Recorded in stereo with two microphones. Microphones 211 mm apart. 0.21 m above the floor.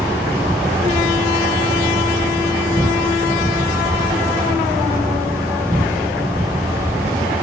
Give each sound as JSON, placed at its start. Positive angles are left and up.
{"t": 0.0, "sound": "an insect", "side_deg": -15, "distance_m": 1.9}